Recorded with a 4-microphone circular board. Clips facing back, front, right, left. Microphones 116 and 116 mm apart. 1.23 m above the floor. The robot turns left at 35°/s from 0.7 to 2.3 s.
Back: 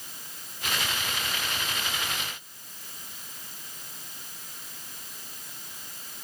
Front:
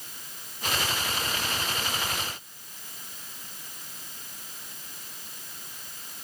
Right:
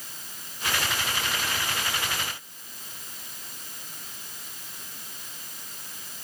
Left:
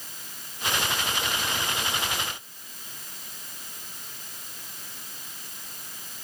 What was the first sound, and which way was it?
Only background noise.